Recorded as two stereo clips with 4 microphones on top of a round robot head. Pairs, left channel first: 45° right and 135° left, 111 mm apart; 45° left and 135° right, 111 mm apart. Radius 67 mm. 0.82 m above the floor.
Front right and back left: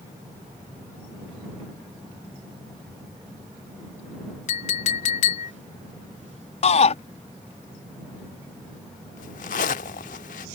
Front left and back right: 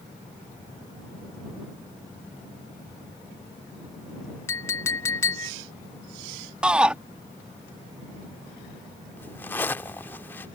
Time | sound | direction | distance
4.5 | a clink | 20° right | ?
6.6 | a shout | 55° right | ?
9.2 | a zipper | 30° right | ?